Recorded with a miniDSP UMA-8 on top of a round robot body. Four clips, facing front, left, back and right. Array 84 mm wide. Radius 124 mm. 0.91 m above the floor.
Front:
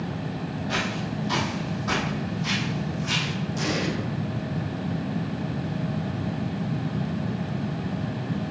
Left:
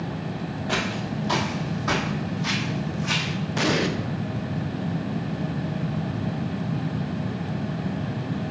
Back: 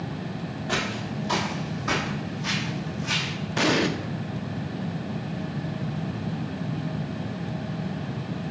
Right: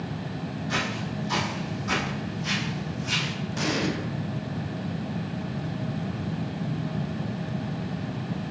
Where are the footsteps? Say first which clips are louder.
Left 3 dB, back 1 dB; 115° left, 1.7 m; by 3.3 s 90° left, 3 m.